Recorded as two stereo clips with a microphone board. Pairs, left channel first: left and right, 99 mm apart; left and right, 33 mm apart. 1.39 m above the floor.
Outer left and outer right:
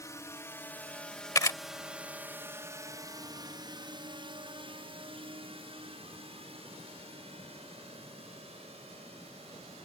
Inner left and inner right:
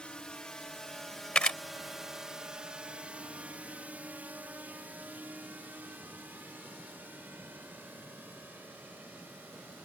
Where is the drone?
30° left (ahead or behind); by 9.9 s 80° right.